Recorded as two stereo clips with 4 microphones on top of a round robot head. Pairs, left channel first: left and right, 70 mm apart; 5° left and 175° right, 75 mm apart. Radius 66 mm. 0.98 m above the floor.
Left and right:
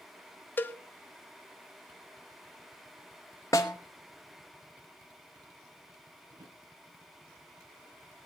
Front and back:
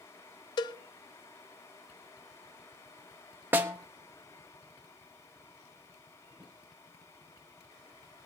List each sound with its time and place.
0.6 s a cowbell: 30° left, 0.7 m
3.5 s a snare drum: 135° left, 0.8 m
6.3 s a drawer: 60° right, 5 m